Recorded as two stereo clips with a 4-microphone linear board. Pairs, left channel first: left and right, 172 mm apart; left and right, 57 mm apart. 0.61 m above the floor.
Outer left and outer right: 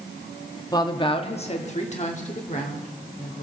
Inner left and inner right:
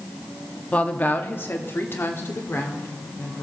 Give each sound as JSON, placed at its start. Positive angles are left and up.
{"t": 0.7, "sound": "a woman speaking", "side_deg": 20, "distance_m": 0.9}